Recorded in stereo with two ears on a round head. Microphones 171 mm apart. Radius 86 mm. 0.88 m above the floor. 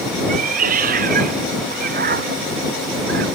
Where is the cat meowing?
45° right (ahead or behind); by 3.2 s 50° right (ahead or behind).